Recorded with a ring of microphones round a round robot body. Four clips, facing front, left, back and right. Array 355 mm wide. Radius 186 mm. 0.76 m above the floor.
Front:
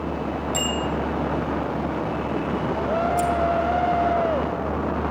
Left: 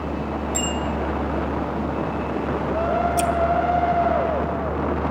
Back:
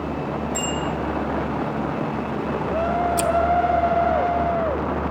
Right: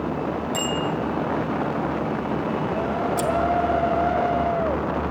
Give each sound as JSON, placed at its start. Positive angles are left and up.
{"t": 0.5, "sound": "a bicycle bell", "azimuth_deg": -25, "distance_m": 6.0}
{"t": 3.2, "sound": "scissors", "azimuth_deg": 155, "distance_m": 0.7}